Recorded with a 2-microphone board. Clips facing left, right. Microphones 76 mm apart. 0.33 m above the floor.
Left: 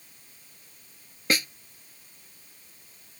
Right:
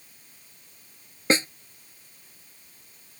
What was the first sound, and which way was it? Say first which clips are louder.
A snare drum: right 5 dB; 30° right (ahead or behind).